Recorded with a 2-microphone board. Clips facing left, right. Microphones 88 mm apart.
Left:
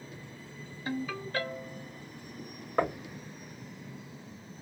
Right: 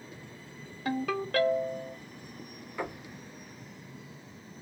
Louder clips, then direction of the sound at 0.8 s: Right 5 dB; 65° right (ahead or behind).